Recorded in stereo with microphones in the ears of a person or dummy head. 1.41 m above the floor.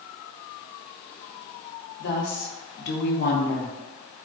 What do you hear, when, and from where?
2.0 s a woman speaking: 50° left (ahead or behind), 0.7 m